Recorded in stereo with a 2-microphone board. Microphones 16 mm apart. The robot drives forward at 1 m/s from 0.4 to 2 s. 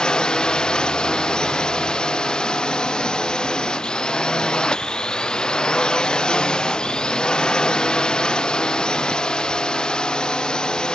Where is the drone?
75° left (ahead or behind); by 10.9 s 80° left.